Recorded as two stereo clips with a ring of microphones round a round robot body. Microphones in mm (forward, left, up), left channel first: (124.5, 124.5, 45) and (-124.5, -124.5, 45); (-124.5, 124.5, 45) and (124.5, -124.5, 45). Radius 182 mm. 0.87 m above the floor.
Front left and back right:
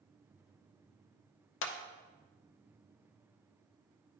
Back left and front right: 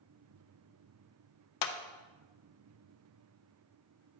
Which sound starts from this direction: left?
A clap, at 1.6 s.